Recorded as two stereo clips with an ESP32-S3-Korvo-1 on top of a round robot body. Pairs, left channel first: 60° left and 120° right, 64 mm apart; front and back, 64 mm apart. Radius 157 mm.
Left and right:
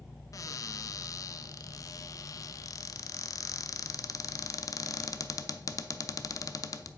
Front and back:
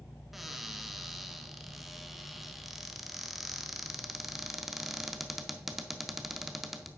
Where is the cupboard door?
90° left, 0.6 m.